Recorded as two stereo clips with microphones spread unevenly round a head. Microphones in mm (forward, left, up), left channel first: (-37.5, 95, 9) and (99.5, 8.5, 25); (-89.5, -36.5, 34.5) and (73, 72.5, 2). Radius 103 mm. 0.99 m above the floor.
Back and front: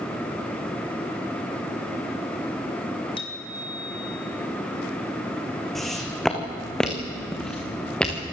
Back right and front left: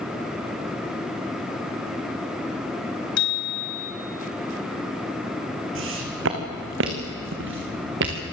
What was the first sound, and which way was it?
A bicycle bell, 145° right.